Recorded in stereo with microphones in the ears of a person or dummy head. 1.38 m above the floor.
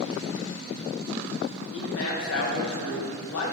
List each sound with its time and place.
1.7 s a man speaking: 75° left (ahead or behind), 0.6 m